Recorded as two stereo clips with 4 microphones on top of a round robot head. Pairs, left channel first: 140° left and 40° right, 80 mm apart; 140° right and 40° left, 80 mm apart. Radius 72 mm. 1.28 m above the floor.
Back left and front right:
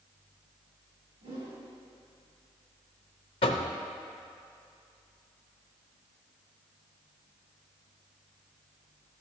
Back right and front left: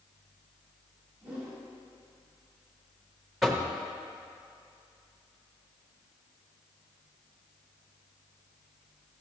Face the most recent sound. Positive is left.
turn(degrees=125)